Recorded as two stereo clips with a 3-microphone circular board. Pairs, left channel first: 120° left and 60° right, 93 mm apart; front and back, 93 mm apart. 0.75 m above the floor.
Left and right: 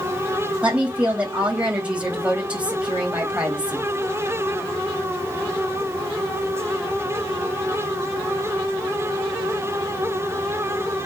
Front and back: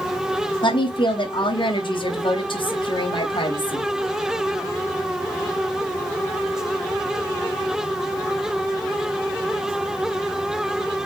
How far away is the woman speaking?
About 3.5 m.